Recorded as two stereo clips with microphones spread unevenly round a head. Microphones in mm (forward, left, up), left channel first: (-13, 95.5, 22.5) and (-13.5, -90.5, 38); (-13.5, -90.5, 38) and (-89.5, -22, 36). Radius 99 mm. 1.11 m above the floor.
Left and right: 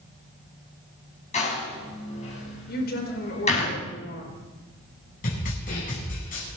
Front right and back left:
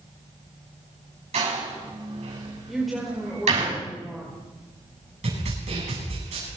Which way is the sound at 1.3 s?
145° left.